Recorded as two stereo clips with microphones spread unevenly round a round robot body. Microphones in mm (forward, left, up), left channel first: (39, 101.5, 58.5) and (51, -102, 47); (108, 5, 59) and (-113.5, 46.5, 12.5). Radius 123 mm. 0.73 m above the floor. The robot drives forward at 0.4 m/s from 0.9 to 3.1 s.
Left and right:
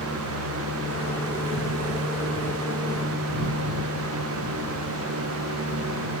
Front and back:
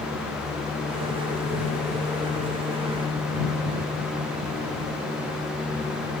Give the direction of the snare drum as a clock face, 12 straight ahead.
No snare drum in this recording.